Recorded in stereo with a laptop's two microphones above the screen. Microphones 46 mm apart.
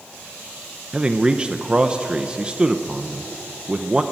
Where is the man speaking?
20° right (ahead or behind), 0.8 m.